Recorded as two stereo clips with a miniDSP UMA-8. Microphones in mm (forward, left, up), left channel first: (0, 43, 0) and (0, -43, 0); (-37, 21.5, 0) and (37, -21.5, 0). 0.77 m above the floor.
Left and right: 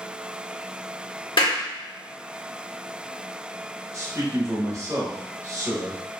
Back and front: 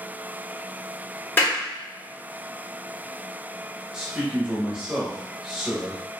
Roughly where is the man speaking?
Right.